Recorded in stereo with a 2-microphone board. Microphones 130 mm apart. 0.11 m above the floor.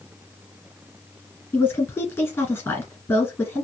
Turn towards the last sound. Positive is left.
turn(degrees=15)  # may be behind; listen again after turning